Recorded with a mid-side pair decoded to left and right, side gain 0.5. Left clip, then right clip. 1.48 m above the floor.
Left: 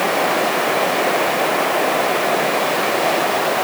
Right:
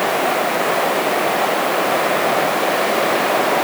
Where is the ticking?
I don't hear ticking.